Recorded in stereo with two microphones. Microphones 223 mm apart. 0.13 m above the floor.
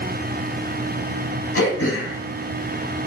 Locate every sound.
1.6 s throat clearing: 80° left, 0.8 m